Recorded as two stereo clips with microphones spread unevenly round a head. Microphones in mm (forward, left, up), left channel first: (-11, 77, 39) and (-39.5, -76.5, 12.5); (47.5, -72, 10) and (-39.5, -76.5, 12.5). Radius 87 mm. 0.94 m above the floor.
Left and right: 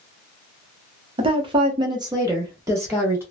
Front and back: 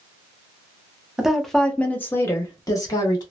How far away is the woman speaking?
About 0.8 m.